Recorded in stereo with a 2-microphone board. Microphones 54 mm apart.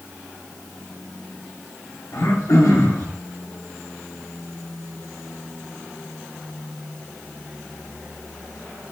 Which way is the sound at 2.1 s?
75° left (ahead or behind).